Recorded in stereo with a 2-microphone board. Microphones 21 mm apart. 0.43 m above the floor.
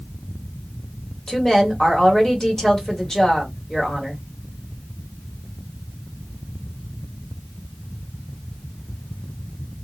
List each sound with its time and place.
1.3 s a woman speaking: 20° left (ahead or behind), 1.7 m